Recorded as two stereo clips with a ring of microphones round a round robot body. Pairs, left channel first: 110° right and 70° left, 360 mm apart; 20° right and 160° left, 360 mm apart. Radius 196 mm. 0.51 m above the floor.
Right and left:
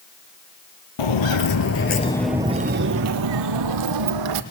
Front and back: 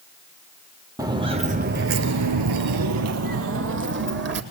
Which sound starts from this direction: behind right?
Footsteps, at 1.0 s.